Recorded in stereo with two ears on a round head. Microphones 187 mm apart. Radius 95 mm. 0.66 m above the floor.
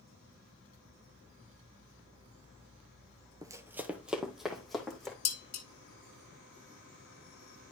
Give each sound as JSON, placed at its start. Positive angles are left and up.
{"t": 3.4, "sound": "running footsteps", "side_deg": -20, "distance_m": 0.8}
{"t": 5.2, "sound": "dishes clattering", "side_deg": 30, "distance_m": 1.4}